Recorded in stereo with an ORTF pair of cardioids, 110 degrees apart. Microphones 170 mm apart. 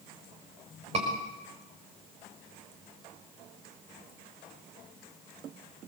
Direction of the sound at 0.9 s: 40° right.